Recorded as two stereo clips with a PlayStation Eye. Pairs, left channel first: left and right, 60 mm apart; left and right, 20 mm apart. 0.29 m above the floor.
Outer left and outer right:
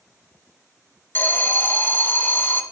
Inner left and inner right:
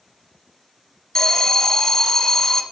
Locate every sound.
1.1 s an alarm: 35° left (ahead or behind), 0.9 m